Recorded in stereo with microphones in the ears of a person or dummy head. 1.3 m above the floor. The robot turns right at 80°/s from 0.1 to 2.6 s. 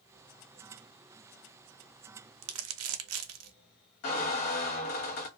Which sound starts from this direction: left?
A squeak, at 4.0 s.